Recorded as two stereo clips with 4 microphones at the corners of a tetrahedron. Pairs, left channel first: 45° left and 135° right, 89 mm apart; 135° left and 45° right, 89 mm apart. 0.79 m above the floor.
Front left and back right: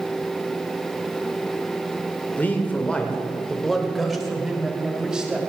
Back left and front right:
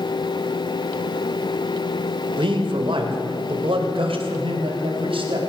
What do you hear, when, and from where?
2.4 s a man speaking: 25° right, 2 m; by 5.4 s 55° right, 3.5 m